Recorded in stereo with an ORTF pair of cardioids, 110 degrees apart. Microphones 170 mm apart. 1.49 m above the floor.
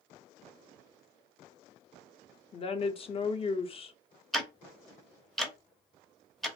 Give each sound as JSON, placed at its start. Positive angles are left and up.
{"t": 2.5, "sound": "a woman speaking", "azimuth_deg": 35, "distance_m": 0.6}
{"t": 4.3, "sound": "ticking", "azimuth_deg": 0, "distance_m": 0.6}